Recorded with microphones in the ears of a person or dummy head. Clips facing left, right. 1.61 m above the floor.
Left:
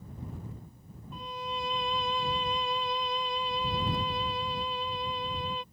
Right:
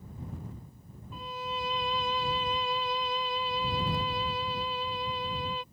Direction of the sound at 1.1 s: Centre (ahead or behind).